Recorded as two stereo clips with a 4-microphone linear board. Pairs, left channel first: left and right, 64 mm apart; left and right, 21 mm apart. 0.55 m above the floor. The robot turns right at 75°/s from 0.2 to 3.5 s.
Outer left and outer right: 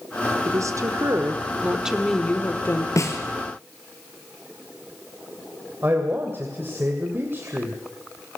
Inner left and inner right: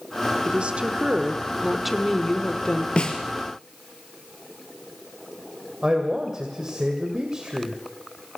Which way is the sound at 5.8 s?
35° right (ahead or behind).